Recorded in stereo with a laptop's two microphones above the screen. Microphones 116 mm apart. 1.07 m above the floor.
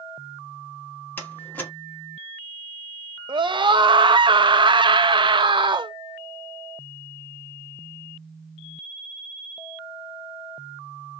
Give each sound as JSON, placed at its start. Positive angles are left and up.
{"t": 1.2, "sound": "a door slam", "side_deg": 15, "distance_m": 2.0}
{"t": 3.3, "sound": "a scream", "side_deg": -40, "distance_m": 0.9}